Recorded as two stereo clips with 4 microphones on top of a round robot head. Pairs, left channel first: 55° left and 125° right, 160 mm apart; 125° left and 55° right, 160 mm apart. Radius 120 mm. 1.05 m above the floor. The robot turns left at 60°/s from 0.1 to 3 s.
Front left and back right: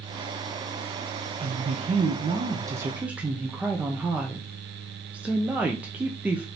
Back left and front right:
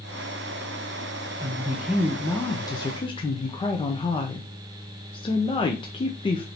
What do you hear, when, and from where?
1.4 s a woman speaking: 105° right, 0.8 m; by 6.5 s 160° left, 0.8 m